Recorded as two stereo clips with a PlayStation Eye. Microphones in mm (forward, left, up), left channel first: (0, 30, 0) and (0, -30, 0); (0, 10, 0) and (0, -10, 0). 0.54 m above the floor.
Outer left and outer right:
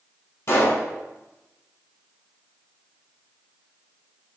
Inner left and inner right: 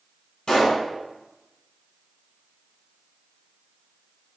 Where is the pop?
50° left (ahead or behind), 2.5 m.